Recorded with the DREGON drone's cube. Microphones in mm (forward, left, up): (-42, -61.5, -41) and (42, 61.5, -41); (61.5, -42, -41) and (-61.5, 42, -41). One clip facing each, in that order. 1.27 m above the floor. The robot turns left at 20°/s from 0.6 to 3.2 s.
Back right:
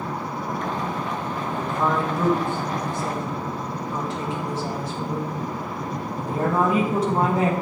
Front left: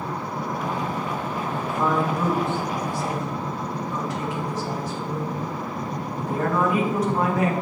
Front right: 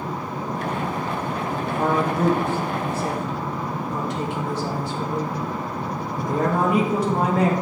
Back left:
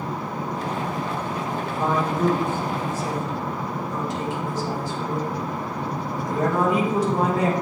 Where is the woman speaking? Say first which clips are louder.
Even, front right 2 dB; 25° right, 2.5 m; by 7.5 s 60° right, 2.5 m.